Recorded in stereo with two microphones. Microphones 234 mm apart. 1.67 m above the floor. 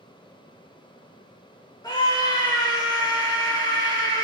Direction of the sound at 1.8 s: 15° left (ahead or behind).